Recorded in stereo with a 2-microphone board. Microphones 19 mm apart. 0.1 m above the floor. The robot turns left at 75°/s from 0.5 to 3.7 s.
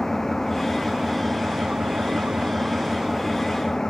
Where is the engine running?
25° left; by 3.9 s 145° left.